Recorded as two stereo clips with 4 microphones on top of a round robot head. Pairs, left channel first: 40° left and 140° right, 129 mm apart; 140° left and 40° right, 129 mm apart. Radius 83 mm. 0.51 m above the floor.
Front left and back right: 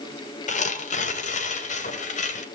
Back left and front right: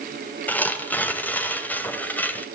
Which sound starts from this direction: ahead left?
Tearing paper, at 0.5 s.